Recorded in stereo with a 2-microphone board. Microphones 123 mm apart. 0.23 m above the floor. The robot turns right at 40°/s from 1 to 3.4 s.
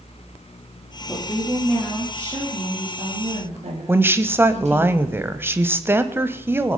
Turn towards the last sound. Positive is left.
turn(degrees=-20)  # may be behind; listen again after turning